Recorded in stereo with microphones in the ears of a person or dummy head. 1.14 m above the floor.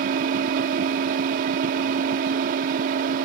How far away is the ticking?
I don't hear ticking.